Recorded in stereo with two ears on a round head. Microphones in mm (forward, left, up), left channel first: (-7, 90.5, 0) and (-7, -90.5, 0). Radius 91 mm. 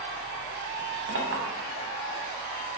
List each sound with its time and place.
1.1 s a clink: 65° right (ahead or behind), 0.8 m